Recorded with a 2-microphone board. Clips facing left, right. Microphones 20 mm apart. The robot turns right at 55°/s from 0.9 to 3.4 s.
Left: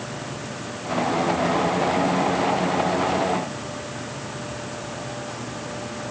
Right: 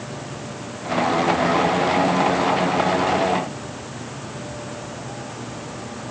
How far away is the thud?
I don't hear a thud.